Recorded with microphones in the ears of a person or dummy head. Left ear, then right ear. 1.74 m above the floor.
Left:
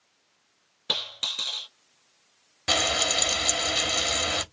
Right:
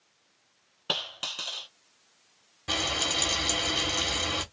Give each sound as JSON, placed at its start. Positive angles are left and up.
{"t": 0.9, "sound": "a dropped coin", "side_deg": 10, "distance_m": 1.9}
{"t": 2.7, "sound": "frying", "side_deg": 40, "distance_m": 0.9}